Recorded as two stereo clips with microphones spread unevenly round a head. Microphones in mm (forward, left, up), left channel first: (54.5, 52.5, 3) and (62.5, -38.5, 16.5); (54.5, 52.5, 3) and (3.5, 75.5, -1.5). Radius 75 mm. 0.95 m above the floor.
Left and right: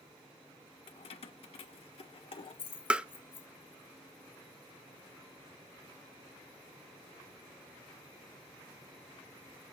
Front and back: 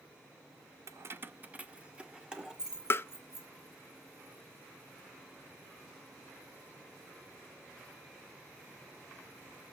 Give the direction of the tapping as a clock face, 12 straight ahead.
12 o'clock.